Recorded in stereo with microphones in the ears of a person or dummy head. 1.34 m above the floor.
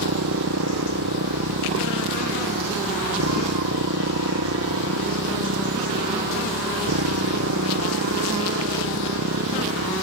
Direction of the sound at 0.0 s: 65° right (ahead or behind).